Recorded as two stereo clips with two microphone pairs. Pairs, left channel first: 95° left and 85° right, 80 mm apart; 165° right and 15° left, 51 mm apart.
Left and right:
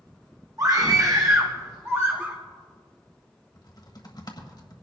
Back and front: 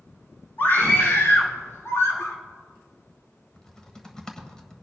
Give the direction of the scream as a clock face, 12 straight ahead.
4 o'clock.